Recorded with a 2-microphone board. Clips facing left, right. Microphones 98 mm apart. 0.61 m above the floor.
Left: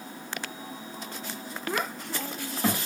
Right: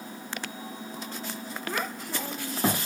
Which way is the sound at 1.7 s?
10° left (ahead or behind).